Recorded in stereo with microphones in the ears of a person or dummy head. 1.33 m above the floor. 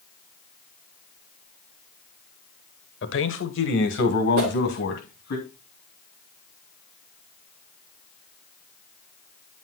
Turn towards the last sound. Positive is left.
turn(degrees=-60)  # may be behind; listen again after turning